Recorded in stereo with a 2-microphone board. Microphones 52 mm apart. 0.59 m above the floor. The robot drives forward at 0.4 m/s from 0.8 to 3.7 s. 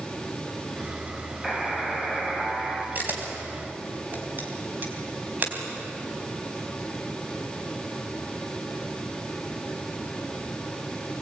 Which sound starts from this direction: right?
A camera shutter, at 3.0 s.